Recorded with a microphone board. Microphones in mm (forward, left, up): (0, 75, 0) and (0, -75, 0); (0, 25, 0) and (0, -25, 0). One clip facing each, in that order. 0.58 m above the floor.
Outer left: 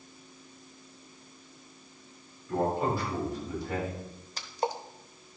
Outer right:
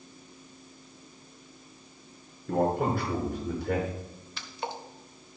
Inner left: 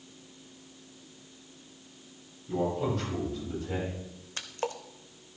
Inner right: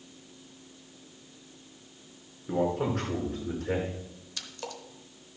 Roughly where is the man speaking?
Right.